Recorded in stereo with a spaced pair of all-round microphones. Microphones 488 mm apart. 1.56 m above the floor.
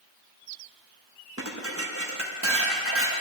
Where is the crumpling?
I don't hear crumpling.